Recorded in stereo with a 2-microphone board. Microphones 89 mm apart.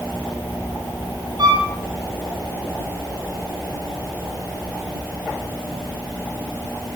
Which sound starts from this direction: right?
A violin, at 1.4 s.